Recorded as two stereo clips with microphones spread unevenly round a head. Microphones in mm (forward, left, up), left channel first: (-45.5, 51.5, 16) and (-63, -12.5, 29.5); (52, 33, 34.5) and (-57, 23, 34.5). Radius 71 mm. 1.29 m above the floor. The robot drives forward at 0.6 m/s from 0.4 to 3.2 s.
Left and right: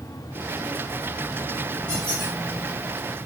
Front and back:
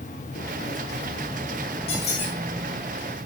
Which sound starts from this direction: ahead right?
A squeak, at 1.9 s.